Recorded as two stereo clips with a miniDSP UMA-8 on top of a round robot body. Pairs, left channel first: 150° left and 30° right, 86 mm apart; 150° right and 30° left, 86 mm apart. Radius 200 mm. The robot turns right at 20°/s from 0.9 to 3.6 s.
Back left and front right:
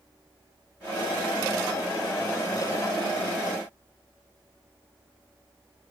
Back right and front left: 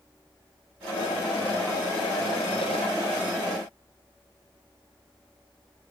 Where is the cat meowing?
I don't hear a cat meowing.